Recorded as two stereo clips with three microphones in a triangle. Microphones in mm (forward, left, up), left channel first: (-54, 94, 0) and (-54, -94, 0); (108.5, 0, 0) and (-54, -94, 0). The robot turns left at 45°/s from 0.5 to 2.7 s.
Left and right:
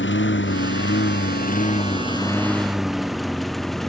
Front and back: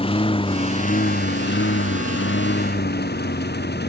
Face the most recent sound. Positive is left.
turn(degrees=0)